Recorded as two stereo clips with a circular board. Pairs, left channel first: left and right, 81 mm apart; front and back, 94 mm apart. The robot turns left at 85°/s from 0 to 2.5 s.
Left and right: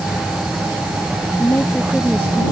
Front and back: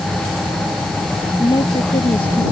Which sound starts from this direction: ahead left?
A woman speaking, at 1.4 s.